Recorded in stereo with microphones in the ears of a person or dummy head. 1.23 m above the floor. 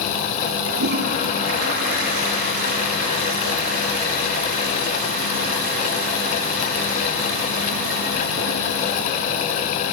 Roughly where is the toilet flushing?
Right.